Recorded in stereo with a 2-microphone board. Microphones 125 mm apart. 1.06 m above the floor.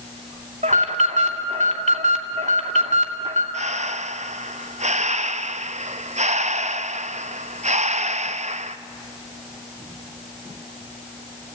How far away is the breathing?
About 0.6 m.